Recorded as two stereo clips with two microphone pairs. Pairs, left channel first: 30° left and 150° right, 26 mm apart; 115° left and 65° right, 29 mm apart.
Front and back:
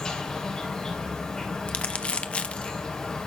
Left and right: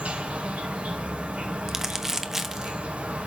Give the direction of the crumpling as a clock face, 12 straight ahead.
12 o'clock.